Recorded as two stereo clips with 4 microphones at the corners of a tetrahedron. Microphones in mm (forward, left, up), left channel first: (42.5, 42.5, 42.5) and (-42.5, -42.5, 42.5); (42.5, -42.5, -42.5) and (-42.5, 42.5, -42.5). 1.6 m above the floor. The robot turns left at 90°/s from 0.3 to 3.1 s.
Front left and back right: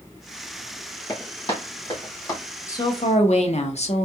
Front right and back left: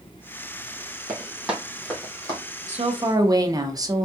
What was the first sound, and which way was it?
Running footsteps, 85° left.